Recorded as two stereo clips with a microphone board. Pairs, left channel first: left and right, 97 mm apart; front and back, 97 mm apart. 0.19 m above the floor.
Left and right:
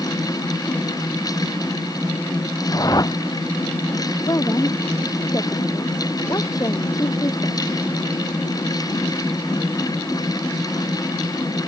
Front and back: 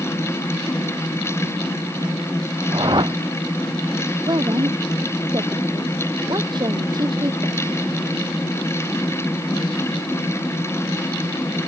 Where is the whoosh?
140° left.